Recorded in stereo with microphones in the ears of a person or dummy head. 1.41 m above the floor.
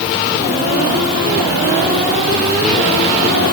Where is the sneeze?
I don't hear a sneeze.